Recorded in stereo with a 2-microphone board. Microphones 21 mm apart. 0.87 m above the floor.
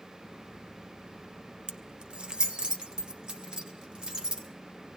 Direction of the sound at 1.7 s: 50° right (ahead or behind).